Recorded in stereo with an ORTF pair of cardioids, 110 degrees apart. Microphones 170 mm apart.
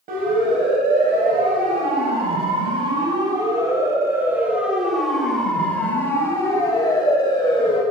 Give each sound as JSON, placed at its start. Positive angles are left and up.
{"t": 0.1, "sound": "a siren", "azimuth_deg": -55, "distance_m": 6.5}